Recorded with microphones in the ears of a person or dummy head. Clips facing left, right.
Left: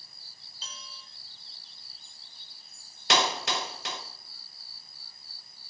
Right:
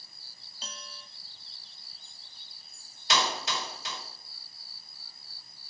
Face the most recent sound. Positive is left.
turn(degrees=50)  # may be behind; listen again after turning